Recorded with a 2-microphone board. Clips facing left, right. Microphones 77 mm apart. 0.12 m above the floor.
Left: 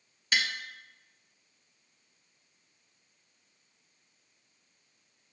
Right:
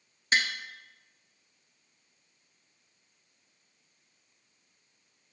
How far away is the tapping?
About 0.9 m.